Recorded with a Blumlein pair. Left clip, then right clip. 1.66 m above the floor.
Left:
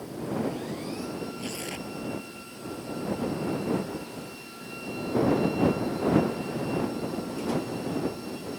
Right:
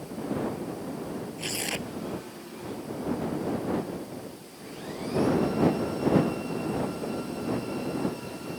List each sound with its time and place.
1.4 s tearing paper: 70° right